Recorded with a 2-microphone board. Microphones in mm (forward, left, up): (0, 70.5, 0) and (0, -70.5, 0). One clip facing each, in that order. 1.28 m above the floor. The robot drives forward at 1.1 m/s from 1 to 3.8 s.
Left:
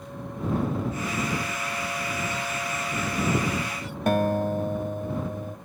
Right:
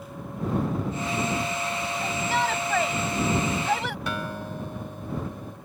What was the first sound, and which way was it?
A shout, 85° right.